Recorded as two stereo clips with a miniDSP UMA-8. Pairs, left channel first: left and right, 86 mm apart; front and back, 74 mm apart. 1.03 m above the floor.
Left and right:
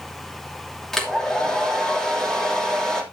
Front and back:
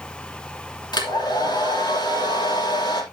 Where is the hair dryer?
5° left, 2.5 m.